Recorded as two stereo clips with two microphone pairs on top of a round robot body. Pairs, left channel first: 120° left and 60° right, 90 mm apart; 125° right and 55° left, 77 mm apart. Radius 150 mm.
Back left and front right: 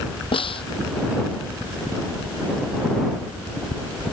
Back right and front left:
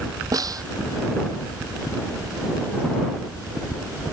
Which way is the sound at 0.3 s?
95° left.